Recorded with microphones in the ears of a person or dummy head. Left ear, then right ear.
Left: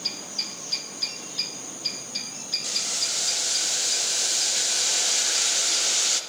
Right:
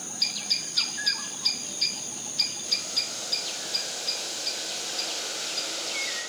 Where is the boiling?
55° left (ahead or behind), 1.1 m.